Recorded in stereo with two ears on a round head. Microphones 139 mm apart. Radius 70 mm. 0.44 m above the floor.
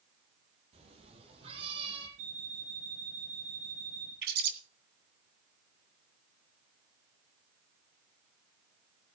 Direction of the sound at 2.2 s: 55° right (ahead or behind).